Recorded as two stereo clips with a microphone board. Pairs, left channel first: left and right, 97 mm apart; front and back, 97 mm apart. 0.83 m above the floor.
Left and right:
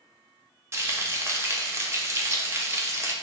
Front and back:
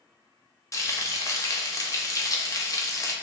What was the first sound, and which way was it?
Frying, 40° right.